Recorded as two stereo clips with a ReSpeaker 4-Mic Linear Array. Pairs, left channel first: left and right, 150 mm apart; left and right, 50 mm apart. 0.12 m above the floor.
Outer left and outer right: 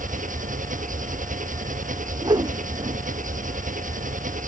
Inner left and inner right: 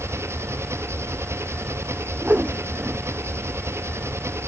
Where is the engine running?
60° right (ahead or behind).